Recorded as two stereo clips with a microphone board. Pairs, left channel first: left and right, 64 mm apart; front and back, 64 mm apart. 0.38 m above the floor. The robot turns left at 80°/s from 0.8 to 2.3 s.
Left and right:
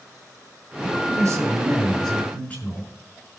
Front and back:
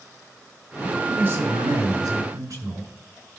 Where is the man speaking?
90° right, 5.5 m; by 2.9 s 150° left, 5.5 m.